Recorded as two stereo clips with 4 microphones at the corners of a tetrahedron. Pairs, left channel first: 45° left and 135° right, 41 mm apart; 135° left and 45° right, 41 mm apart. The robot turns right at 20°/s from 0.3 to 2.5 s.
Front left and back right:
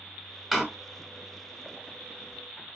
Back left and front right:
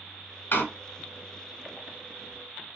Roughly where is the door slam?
Behind left.